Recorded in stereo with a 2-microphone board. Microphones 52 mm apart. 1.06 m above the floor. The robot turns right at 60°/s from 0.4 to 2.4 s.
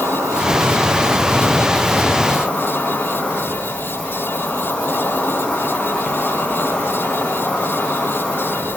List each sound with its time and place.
0.0 s an insect: 90° right, 0.7 m; by 8.8 s 30° left, 0.7 m